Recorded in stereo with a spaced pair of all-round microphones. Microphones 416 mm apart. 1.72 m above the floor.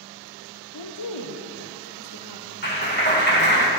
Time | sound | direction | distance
0.7 | a woman speaking | 50° left (ahead or behind) | 0.7 m
2.6 | a clap | 25° left (ahead or behind) | 1.8 m